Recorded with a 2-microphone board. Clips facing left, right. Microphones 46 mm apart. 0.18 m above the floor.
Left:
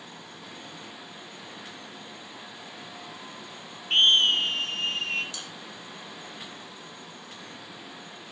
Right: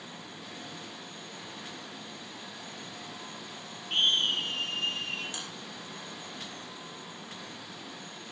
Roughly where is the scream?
Left.